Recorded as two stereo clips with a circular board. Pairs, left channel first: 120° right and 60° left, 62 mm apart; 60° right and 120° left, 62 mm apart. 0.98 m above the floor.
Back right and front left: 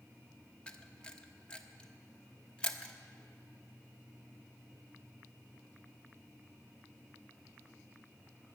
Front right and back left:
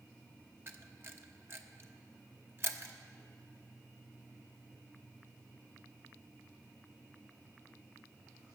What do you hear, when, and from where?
0.7 s a camera shutter: 165° left, 0.9 m